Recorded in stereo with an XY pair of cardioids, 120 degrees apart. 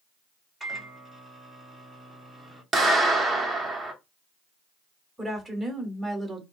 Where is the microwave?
10° right, 1.0 m.